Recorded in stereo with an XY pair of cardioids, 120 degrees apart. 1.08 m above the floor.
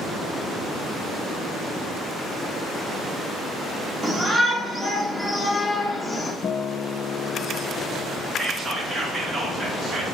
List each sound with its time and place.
4.0 s a shout: 25° right, 2 m; by 6.3 s 10° left, 1.9 m
6.4 s a guitar: 45° left, 0.6 m
8.4 s whispering: 35° right, 1.4 m